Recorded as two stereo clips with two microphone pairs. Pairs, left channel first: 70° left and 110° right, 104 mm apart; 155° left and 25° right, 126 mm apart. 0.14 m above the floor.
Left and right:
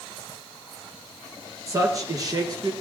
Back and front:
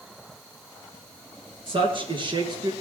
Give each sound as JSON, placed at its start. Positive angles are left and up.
{"t": 1.7, "sound": "a man speaking", "azimuth_deg": -55, "distance_m": 2.5}